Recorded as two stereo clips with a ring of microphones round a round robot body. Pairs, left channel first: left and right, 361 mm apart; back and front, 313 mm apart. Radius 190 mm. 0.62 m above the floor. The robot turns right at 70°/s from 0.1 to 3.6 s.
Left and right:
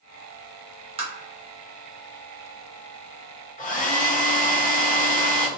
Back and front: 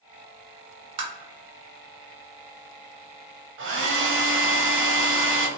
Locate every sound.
1.0 s tapping: 15° right, 0.6 m; by 1.1 s 10° right, 0.6 m
3.6 s a hair dryer: 30° left, 0.8 m